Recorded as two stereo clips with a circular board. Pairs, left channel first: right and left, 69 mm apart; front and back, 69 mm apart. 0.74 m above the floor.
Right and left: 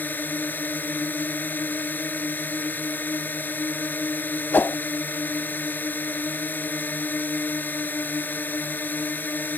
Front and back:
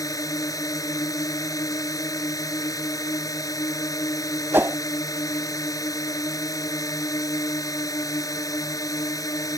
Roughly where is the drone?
Ahead right.